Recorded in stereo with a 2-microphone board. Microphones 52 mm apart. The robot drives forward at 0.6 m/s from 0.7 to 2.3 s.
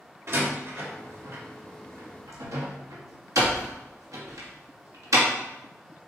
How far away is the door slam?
About 1.9 m.